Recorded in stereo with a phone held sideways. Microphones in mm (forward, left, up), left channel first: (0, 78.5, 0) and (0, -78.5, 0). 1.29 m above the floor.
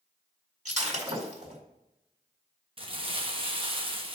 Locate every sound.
0.7 s breaking glass: 50° right (ahead or behind), 2.0 m
2.8 s crumpling: 35° right (ahead or behind), 0.9 m